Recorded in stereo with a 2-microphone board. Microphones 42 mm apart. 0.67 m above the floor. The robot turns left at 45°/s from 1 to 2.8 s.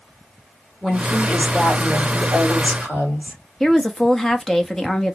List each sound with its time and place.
0.8 s a woman speaking: 175° right, 2 m; by 3.4 s 100° left, 2 m
3.6 s a woman speaking: 10° left (ahead or behind), 0.6 m